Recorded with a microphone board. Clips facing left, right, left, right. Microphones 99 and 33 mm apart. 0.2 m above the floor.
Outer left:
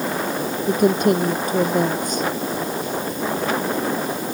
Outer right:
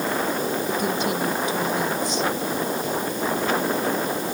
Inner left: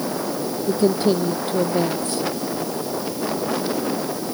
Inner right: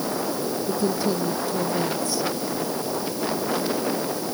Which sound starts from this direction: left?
A woman speaking, at 0.7 s.